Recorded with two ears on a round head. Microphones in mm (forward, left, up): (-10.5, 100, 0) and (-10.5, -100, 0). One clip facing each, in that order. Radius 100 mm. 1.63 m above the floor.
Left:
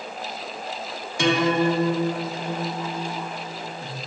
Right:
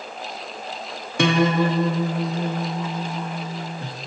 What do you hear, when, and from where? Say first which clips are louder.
1.2 s a guitar: right 1 dB; 50° right (ahead or behind), 0.9 m